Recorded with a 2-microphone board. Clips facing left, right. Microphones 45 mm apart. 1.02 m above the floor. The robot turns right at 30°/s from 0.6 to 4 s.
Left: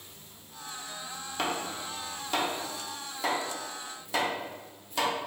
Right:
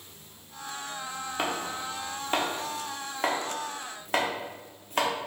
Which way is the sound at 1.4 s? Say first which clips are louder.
Even; 15° right (ahead or behind).